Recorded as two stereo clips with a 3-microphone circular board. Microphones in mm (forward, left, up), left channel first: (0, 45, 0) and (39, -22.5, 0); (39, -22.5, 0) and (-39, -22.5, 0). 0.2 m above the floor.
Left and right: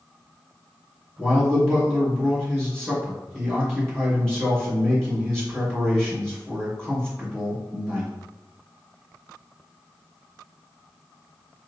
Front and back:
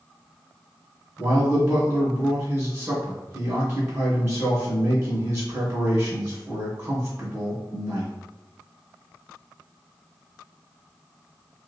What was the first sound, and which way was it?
A man speaking, 165° right.